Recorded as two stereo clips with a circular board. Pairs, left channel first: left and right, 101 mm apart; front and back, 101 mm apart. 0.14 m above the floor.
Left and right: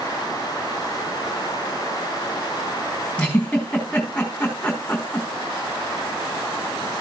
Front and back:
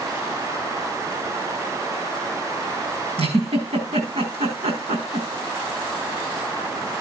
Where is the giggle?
175° left, 5 m.